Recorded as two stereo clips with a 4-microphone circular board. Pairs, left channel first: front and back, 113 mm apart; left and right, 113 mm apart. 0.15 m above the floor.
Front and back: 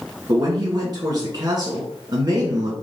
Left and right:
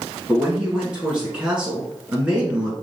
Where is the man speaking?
165° right, 1.5 m.